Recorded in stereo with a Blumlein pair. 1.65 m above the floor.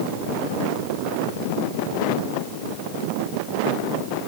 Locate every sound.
Only background noise.